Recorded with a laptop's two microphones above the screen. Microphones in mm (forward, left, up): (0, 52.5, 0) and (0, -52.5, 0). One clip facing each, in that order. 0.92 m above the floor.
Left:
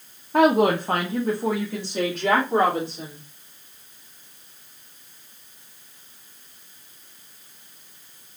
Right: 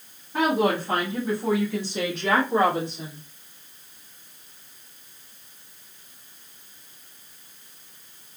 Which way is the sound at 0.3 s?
60° left (ahead or behind).